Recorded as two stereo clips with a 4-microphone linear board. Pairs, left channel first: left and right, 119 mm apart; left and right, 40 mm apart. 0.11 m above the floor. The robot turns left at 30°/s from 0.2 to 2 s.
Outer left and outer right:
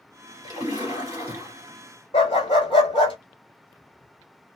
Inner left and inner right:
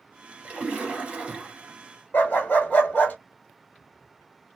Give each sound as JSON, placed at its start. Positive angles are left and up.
{"t": 0.4, "sound": "a splash", "azimuth_deg": -110, "distance_m": 1.9}
{"t": 2.1, "sound": "a dog barking", "side_deg": 45, "distance_m": 1.2}